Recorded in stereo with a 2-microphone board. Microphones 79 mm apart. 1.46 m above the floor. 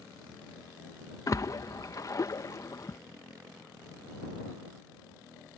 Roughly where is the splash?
Left.